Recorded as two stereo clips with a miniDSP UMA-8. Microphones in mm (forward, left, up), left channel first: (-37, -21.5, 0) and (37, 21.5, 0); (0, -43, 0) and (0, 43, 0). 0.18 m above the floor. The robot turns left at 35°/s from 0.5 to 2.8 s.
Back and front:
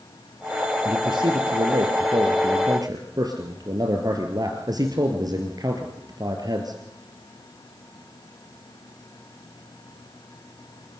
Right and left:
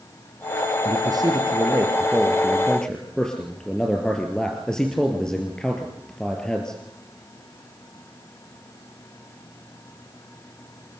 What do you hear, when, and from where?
0.8 s a man speaking: 60° left, 3 m; by 6.8 s 10° right, 3 m